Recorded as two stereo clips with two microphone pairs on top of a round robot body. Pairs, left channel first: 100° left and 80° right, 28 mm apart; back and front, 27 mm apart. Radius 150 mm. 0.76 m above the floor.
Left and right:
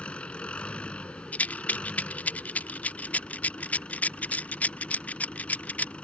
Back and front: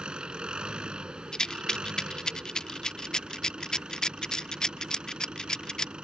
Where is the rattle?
115° left.